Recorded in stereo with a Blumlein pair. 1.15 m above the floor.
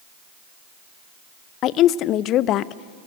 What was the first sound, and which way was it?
A woman speaking, 35° left.